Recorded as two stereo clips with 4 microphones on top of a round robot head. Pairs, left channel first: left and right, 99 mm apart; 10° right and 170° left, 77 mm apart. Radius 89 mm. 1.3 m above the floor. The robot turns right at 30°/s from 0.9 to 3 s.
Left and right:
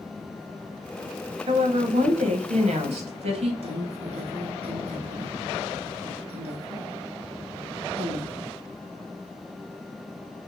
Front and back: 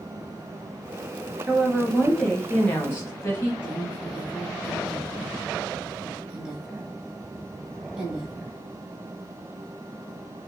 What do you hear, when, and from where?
1.5 s a woman speaking: 120° right, 1.2 m; by 3.5 s 75° right, 1.2 m
3.6 s a woman speaking: 110° right, 1.3 m